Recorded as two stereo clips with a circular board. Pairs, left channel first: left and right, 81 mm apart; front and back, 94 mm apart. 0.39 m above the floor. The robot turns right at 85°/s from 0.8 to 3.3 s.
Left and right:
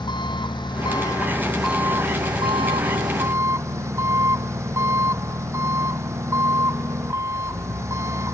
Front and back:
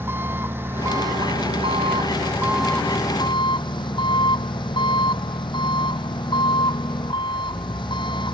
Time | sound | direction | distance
0.0 | an engine running | 115° left | ?